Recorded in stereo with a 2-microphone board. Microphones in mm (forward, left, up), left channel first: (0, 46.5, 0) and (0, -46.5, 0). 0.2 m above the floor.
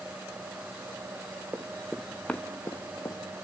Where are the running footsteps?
15° right (ahead or behind), 1.7 m; by 3.2 s 40° left (ahead or behind), 2.5 m.